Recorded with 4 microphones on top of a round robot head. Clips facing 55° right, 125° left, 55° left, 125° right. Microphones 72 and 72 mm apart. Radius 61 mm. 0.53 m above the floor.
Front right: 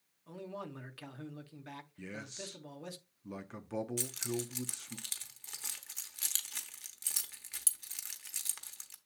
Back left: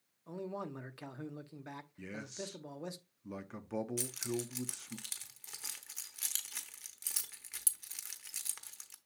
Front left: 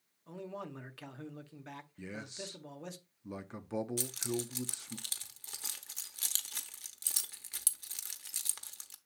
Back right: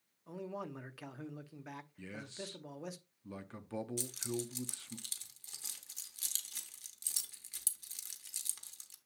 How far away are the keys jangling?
About 1.0 m.